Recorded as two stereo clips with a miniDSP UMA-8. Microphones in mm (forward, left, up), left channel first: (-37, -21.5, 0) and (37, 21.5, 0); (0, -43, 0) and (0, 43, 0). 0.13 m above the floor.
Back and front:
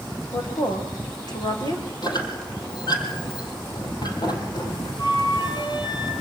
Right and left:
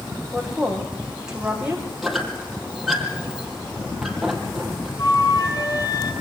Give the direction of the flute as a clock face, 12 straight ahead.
4 o'clock.